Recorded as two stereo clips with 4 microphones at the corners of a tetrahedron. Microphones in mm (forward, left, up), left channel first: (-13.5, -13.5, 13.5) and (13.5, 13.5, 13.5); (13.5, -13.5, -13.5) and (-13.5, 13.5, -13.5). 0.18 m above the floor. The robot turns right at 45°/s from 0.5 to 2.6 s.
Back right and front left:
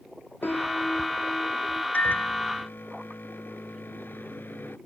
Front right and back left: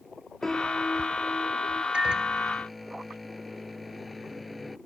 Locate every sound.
0.4 s a piano: 125° right; by 1.8 s 65° right
1.9 s a microwave: 165° right; by 4.8 s 135° right